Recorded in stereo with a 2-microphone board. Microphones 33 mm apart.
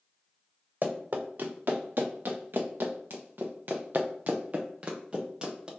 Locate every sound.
0.8 s running footsteps: 60° right (ahead or behind), 1.8 m; by 5.7 s 20° right (ahead or behind), 1.7 m